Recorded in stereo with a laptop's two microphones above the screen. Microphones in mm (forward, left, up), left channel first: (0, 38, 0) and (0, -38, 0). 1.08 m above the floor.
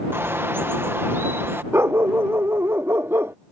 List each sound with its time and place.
0.1 s a bird: 30° right (ahead or behind)
1.7 s a dog barking: 30° right (ahead or behind)